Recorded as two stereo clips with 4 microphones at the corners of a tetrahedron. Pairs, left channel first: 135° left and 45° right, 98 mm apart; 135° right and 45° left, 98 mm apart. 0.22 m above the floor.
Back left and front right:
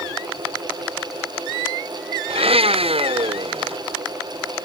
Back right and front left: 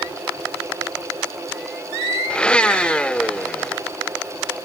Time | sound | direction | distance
2.3 | a blender | 55° right | ?